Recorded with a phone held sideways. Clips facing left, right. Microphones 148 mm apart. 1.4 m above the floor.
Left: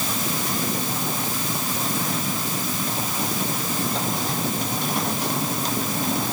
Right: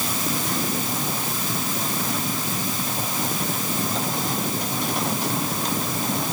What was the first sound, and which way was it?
Only background noise.